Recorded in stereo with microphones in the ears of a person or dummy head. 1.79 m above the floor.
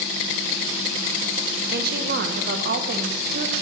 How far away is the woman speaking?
About 1.7 m.